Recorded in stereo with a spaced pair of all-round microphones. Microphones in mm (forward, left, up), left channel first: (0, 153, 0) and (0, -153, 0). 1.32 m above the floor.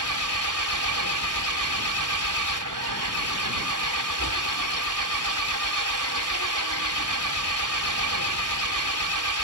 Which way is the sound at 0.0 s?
80° right.